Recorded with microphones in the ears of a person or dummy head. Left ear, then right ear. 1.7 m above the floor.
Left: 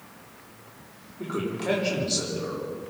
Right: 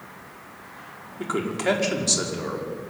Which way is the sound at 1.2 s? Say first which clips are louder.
Right 4 dB; 85° right.